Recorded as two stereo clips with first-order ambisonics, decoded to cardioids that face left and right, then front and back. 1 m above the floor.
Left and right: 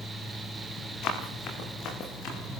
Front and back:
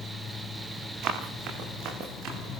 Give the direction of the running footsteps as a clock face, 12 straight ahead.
8 o'clock.